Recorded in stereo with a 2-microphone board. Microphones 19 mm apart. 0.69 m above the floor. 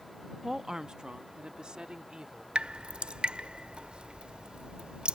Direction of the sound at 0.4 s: 15° right (ahead or behind).